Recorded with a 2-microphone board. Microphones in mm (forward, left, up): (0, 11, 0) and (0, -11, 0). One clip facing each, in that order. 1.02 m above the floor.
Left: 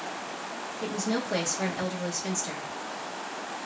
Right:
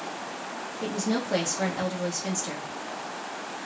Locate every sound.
0.8 s a woman speaking: 10° right (ahead or behind), 1.2 m